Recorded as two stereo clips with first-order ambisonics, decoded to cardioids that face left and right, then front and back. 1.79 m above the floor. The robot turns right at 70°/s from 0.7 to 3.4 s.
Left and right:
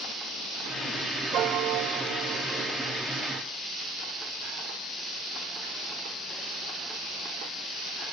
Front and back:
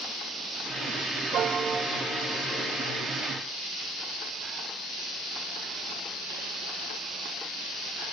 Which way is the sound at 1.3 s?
135° right.